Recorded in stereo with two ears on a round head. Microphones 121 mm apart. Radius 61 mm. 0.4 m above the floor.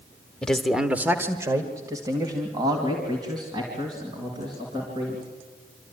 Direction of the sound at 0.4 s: 5° left (ahead or behind).